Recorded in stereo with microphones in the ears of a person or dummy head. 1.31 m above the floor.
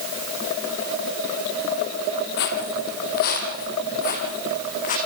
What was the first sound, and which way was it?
Footsteps, 50° left (ahead or behind).